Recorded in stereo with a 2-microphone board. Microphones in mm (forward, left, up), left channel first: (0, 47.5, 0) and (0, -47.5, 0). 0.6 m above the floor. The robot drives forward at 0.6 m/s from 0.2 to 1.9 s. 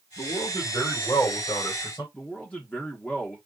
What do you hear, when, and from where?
0.2 s a man speaking: 45° left (ahead or behind), 2 m; by 2.0 s 30° left (ahead or behind), 3 m
2.1 s a man speaking: 15° left (ahead or behind), 0.9 m